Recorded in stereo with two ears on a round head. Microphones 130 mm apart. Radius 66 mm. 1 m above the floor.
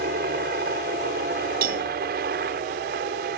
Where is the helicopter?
65° right (ahead or behind).